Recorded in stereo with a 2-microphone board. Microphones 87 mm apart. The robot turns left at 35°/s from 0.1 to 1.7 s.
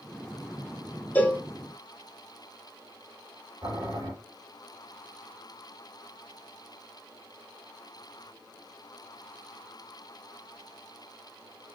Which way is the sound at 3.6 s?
45° right (ahead or behind).